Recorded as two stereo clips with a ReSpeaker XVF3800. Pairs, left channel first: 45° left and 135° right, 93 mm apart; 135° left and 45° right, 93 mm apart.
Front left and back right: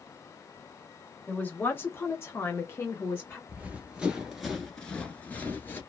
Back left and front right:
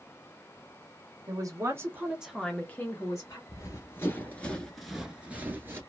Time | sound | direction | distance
1.3 | a man speaking | 20° right | 1.0 m
3.5 | running footsteps | 160° left | 1.1 m